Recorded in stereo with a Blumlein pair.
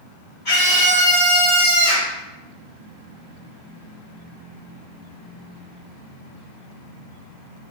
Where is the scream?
40° left, 1.7 m.